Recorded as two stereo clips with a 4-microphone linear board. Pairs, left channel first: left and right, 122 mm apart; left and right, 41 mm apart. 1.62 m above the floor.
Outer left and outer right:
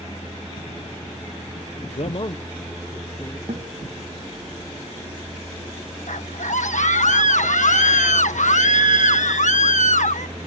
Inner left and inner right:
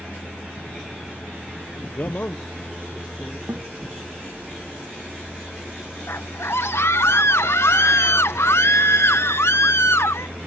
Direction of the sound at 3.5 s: 75° right (ahead or behind).